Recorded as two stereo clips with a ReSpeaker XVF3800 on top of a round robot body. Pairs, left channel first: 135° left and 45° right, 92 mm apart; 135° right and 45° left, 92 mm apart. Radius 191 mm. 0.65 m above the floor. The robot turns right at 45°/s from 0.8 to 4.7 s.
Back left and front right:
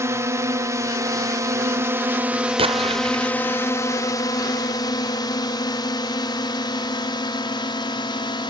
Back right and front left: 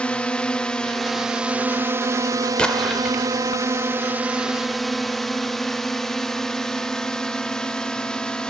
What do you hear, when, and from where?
0.0 s a drone: 65° right; by 8.5 s 145° left
2.6 s an explosion: 55° right; by 3.5 s 10° right